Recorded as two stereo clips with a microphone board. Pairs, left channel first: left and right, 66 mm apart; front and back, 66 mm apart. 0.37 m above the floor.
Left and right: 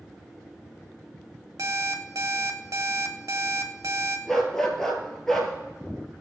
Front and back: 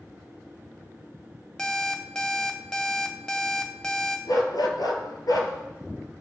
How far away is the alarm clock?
About 1.0 m.